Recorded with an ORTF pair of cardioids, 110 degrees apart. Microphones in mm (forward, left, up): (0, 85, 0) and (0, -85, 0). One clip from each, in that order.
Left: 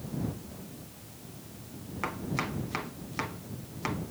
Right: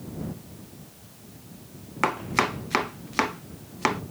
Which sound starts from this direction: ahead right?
Chopping, at 2.0 s.